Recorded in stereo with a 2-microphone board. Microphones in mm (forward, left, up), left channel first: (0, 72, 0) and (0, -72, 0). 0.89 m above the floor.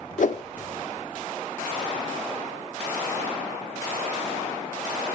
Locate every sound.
0.2 s a whoosh: 65° left (ahead or behind), 0.7 m